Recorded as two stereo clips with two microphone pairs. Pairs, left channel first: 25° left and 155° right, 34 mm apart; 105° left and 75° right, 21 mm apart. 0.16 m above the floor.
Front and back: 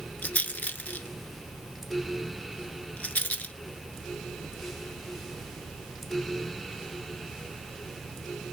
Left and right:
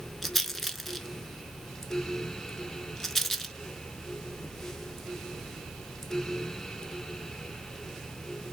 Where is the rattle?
20° left, 0.6 m.